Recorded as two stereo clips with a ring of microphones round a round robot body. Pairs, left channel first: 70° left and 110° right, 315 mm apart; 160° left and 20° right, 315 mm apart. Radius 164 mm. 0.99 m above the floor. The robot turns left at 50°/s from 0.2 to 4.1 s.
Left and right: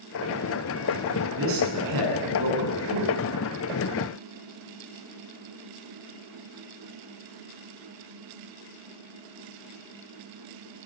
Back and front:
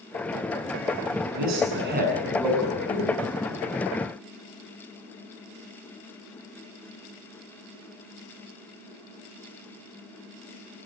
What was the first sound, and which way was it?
A man speaking, 55° right.